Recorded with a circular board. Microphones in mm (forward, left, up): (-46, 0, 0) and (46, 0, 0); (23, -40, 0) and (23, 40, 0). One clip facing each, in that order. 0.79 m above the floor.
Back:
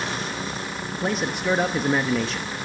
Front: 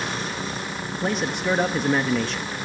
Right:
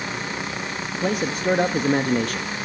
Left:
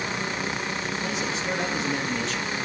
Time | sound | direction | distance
0.9 | a man speaking | 90° right | 0.9 m